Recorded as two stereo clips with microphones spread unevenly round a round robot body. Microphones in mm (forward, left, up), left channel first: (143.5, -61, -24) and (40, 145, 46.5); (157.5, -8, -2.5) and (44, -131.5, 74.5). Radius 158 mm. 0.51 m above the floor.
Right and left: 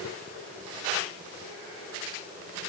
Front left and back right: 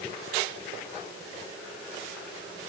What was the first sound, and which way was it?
Only background noise.